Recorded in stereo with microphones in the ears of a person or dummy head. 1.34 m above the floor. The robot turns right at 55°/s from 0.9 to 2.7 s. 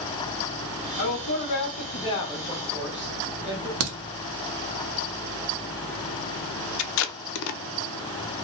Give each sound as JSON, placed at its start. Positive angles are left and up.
{"t": 1.0, "sound": "a woman speaking", "azimuth_deg": 100, "distance_m": 0.9}
{"t": 3.8, "sound": "a crack", "side_deg": -65, "distance_m": 0.6}
{"t": 6.8, "sound": "tape being pulled", "side_deg": 80, "distance_m": 0.5}